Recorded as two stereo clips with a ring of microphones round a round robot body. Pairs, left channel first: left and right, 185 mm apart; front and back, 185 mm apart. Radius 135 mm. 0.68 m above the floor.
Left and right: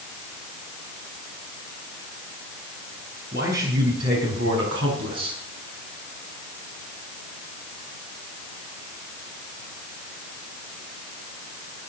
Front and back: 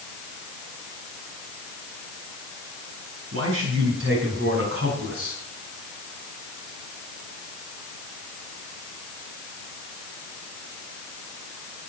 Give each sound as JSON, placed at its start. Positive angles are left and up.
{"t": 3.3, "sound": "a man speaking", "azimuth_deg": -145, "distance_m": 5.5}